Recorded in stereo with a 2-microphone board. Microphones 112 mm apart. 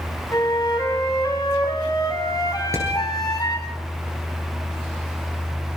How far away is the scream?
No scream in this recording.